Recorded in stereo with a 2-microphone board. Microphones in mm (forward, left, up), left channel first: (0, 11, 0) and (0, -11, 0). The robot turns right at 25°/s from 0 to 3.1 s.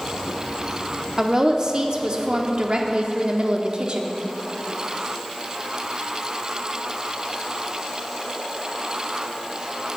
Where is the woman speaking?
140° right, 0.8 m; by 4.2 s 90° right, 0.8 m.